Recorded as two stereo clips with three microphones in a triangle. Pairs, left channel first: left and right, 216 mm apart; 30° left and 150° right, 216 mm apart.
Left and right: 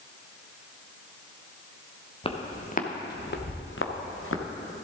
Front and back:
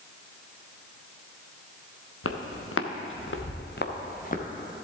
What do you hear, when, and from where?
2.2 s footsteps: 25° left, 1.3 m; by 4.5 s 80° left, 1.5 m